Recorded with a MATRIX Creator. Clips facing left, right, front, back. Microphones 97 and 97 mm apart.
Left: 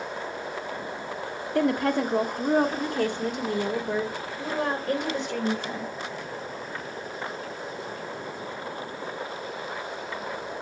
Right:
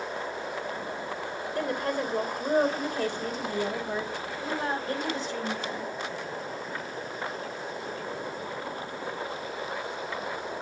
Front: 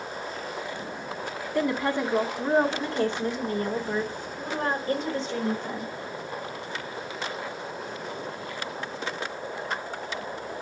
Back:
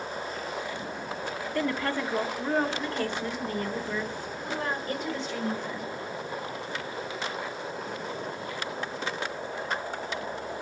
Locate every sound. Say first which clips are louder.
1.6 s a woman speaking: left 7 dB, front 4 dB; 75° left, 1.6 m; by 5.9 s 60° left, 4.5 m